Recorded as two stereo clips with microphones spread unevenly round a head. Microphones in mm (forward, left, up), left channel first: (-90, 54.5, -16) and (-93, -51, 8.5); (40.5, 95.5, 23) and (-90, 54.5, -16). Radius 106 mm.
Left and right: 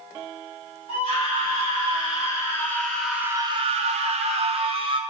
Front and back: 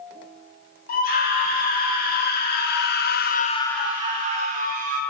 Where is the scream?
25° left, 4.5 m; by 5.0 s 140° right, 2 m.